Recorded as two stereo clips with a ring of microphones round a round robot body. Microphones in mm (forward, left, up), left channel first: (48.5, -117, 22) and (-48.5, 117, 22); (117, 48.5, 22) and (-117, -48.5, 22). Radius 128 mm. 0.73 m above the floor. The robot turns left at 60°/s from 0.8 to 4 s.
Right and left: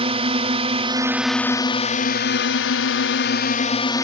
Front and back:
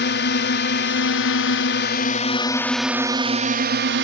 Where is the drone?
50° left; by 4.0 s 140° right.